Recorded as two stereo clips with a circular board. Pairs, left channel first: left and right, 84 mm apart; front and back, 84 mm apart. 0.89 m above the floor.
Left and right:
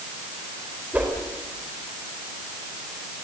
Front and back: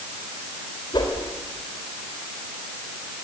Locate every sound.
0.9 s a whoosh: 20° right, 4 m